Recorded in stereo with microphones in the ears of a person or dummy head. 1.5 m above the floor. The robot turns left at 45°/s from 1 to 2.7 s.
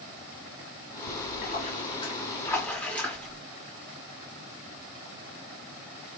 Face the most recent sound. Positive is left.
turn(degrees=10)